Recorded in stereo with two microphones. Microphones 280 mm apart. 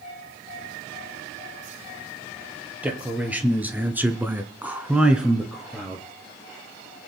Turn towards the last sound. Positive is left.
turn(degrees=0)  # may be behind; listen again after turning